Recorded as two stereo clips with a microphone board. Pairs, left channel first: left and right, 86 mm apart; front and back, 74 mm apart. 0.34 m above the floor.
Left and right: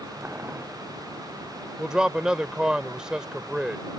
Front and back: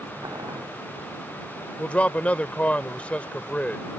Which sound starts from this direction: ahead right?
A man speaking, at 1.8 s.